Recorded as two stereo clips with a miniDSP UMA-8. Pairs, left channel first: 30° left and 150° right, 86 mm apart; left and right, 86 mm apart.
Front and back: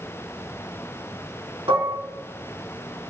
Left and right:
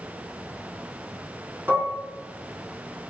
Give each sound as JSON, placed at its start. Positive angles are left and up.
{"t": 1.7, "sound": "dishes clattering", "azimuth_deg": -160, "distance_m": 4.0}